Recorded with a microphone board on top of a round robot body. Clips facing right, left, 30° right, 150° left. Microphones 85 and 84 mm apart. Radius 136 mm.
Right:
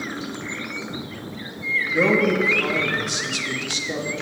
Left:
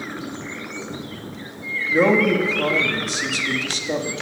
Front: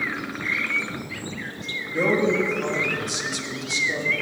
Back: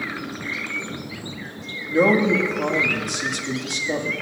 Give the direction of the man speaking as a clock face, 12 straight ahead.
8 o'clock.